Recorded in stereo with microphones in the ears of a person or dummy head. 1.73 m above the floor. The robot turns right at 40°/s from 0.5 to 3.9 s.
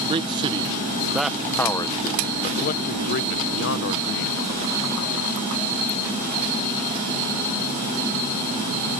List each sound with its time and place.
0.1 s a man speaking: 25° right (ahead or behind); by 4.4 s 60° left (ahead or behind)